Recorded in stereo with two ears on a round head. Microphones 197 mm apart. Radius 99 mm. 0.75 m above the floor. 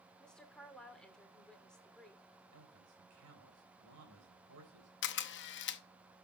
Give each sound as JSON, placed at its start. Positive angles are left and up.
{"t": 0.2, "sound": "a woman speaking", "side_deg": 5, "distance_m": 2.0}
{"t": 2.5, "sound": "a man speaking", "side_deg": -80, "distance_m": 4.0}
{"t": 5.0, "sound": "a camera shutter", "side_deg": 55, "distance_m": 0.7}